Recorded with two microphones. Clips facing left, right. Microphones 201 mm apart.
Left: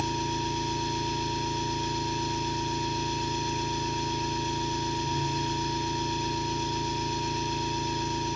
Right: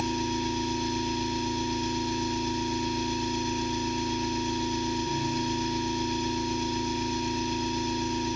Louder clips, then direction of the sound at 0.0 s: Right 3 dB; 15° right (ahead or behind).